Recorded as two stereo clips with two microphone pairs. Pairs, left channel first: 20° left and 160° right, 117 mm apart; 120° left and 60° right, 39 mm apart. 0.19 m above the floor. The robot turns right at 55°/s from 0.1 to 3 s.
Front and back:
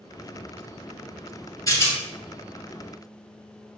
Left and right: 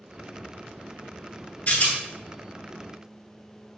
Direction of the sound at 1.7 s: 75° left.